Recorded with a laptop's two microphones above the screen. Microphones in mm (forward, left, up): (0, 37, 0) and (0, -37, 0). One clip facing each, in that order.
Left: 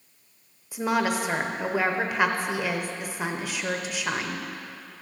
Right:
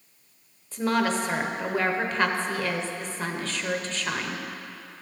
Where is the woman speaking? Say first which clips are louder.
Even; 10° left (ahead or behind), 0.7 m.